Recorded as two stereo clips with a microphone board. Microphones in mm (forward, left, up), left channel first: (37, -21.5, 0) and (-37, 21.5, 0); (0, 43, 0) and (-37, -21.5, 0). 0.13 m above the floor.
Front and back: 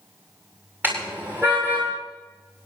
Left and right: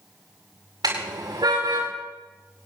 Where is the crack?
I don't hear a crack.